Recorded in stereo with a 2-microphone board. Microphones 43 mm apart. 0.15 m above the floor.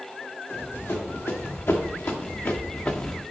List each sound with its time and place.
0.5 s running footsteps: 75° left (ahead or behind), 2.5 m; by 3.2 s 25° left (ahead or behind), 0.8 m